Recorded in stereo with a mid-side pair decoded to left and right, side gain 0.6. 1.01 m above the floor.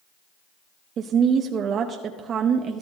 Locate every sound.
1.0 s a woman speaking: 50° right, 0.8 m